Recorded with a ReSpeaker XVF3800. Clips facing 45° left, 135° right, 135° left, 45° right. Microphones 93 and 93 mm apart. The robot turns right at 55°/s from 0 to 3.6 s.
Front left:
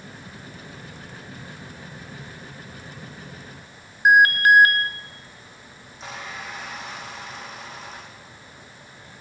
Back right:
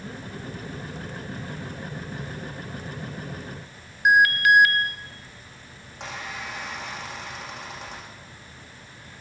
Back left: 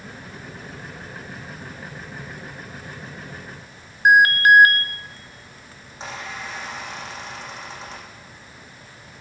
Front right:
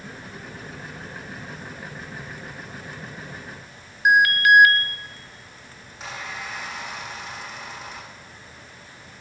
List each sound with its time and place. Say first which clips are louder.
4.0 s an alarm: front left 3 dB, back left 3 dB; 90° left, 1.1 m
5.8 s a squeak: back right 1 dB, back left 2 dB; 165° right, 9.5 m